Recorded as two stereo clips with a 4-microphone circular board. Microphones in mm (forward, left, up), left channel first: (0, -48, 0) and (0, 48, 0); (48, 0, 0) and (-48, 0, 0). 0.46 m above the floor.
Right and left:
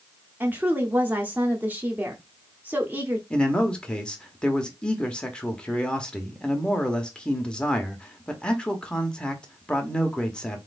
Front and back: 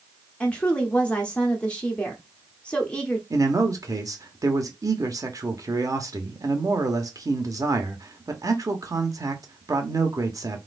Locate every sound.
0.4 s a woman speaking: 60° left, 0.8 m
3.3 s a man speaking: 165° right, 0.9 m